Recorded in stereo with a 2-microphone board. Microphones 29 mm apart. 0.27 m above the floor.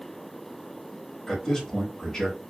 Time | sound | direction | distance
1.3 | a man speaking | 20° left (ahead or behind) | 0.9 m